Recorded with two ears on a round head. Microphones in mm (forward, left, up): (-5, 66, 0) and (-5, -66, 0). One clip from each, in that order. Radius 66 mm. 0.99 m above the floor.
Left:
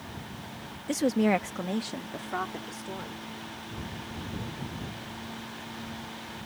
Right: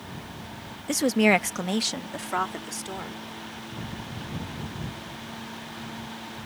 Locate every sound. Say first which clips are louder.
0.9 s a woman speaking: right 5 dB; 20° right (ahead or behind); by 3.2 s 60° right (ahead or behind)